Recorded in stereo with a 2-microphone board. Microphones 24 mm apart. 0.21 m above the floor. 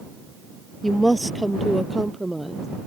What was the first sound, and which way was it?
A woman speaking, 5° left (ahead or behind).